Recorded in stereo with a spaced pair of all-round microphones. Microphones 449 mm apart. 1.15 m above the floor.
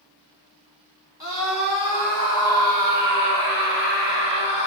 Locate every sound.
1.2 s a scream: 55° left (ahead or behind), 3.5 m; by 4.7 s 60° left (ahead or behind), 4 m